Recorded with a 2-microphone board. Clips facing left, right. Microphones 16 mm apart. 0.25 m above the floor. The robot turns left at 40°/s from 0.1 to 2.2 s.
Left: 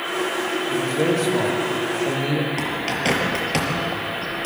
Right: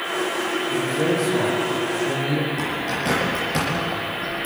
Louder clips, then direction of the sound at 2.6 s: Left 1 dB; 40° left (ahead or behind).